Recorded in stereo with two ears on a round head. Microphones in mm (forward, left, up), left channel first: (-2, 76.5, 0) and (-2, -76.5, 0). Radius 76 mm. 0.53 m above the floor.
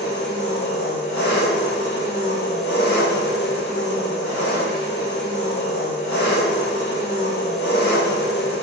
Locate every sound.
0.0 s an engine running: 70° left (ahead or behind), 1.1 m